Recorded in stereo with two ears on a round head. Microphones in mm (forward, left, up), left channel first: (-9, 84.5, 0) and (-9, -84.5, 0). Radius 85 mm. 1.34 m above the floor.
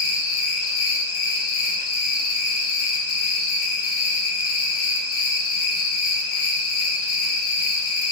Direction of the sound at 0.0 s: 50° left (ahead or behind).